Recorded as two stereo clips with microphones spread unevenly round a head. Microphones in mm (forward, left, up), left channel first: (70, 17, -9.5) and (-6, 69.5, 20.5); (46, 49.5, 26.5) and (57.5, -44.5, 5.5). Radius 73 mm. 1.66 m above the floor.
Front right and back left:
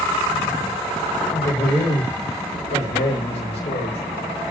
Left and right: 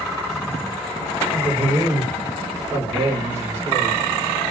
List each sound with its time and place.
1.3 s a man speaking: 10° right, 6 m; by 4.0 s 20° right, 4.5 m